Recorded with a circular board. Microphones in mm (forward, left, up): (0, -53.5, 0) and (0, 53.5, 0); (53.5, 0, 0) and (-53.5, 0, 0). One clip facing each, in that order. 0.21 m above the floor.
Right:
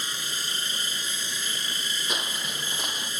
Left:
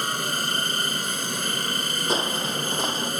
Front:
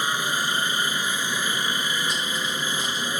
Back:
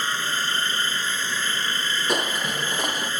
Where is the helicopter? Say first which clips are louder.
Left 9 dB, front 1 dB; 75° left.